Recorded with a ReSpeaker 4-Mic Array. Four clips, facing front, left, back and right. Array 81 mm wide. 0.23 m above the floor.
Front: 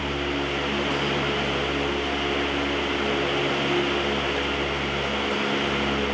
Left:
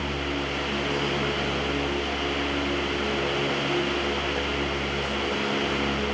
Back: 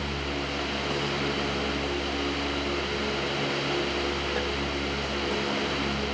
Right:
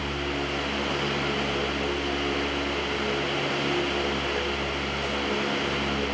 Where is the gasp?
I don't hear a gasp.